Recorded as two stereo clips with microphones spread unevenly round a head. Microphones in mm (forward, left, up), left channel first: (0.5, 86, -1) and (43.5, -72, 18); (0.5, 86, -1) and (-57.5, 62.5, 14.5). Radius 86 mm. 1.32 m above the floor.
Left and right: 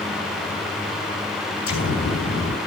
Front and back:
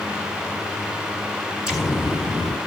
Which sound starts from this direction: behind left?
An explosion, at 1.7 s.